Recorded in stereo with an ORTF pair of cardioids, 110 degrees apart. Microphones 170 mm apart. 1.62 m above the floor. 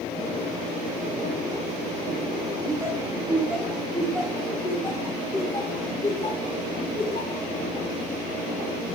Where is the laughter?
20° right, 3 m; by 7.5 s 40° left, 5 m.